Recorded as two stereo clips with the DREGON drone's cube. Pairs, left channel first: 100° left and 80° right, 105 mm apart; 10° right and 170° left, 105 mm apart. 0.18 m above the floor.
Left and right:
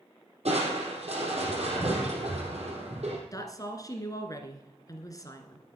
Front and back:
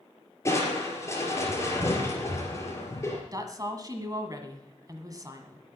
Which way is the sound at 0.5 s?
75° right.